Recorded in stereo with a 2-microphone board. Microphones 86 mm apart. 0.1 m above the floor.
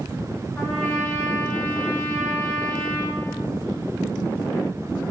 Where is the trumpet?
20° left (ahead or behind), 3.5 m.